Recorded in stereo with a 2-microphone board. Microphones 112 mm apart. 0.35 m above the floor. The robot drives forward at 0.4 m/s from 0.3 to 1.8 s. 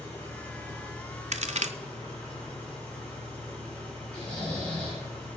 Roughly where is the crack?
Right.